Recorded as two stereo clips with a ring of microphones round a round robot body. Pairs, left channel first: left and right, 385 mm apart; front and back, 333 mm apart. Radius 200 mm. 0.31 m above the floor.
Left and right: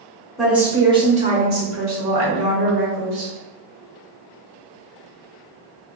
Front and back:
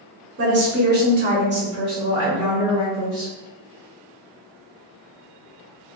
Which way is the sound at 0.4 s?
Straight behind.